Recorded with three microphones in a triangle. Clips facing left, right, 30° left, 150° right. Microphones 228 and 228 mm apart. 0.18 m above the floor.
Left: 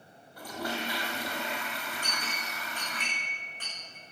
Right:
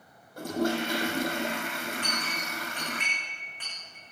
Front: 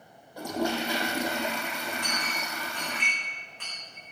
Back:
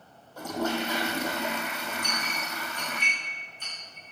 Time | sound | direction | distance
0.4 | a toilet flushing | 50° right | 2.5 m
2.0 | a clink | 45° left | 8.5 m